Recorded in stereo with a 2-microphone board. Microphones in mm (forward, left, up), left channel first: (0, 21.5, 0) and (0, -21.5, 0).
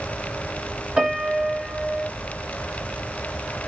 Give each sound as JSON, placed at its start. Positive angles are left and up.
{"t": 1.0, "sound": "a piano", "side_deg": -20, "distance_m": 1.5}